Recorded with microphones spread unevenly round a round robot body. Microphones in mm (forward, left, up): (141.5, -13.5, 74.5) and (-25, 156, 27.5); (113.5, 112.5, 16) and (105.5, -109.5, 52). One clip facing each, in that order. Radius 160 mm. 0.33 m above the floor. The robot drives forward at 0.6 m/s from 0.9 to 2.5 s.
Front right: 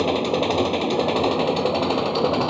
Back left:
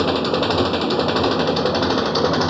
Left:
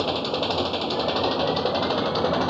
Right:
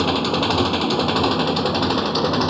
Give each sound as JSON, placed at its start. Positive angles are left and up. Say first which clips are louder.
{"t": 0.0, "sound": "an engine running", "louder": "back left 2 dB, right 5 dB", "azimuth_deg": -145}